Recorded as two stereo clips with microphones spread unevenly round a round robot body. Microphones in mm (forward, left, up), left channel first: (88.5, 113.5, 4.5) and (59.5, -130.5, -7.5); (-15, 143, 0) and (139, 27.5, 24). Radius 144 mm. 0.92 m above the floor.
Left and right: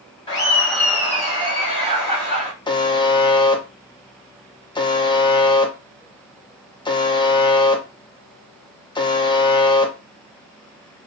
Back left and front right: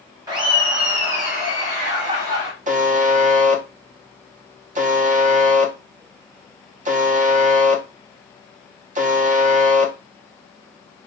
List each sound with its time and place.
0.3 s laughter: 25° left, 0.8 m; by 2.5 s 45° right, 1.7 m
2.7 s a buzzer: 10° left, 0.6 m